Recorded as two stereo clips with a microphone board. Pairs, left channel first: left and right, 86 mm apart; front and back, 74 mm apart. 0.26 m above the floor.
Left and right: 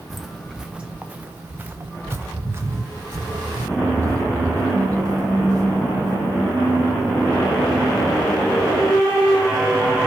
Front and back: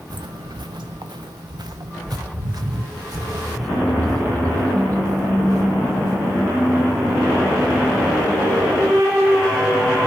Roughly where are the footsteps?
Behind.